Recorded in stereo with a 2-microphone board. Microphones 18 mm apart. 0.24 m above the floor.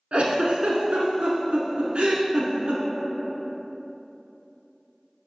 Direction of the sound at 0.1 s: 80° right.